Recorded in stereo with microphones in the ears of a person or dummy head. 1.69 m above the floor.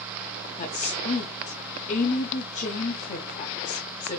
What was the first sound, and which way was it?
A woman speaking, 40° left (ahead or behind).